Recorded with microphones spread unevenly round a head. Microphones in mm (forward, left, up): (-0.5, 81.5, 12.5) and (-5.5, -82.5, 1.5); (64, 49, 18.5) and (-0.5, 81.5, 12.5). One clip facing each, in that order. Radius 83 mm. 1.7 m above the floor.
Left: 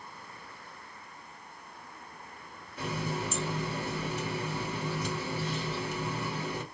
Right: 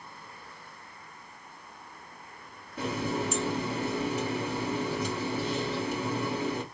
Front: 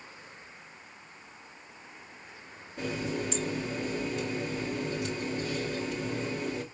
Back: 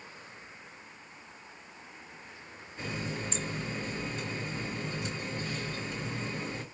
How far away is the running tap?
About 2 m.